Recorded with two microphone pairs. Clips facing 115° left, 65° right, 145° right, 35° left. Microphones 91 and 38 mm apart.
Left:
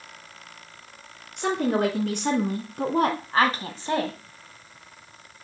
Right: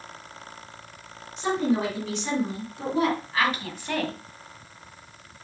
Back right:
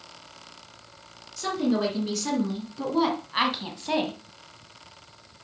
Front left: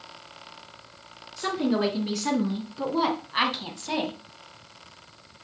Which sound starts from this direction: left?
A woman speaking, at 1.4 s.